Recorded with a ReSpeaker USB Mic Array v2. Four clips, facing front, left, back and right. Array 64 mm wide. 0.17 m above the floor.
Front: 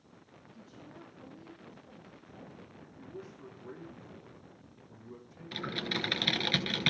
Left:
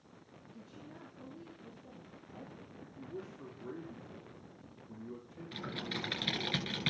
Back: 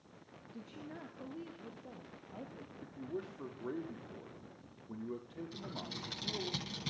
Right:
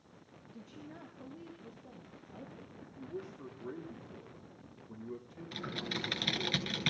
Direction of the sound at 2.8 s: 175° right.